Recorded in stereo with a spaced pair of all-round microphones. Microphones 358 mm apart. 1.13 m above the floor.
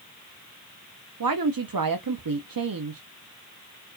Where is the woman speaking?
70° right (ahead or behind), 0.5 m.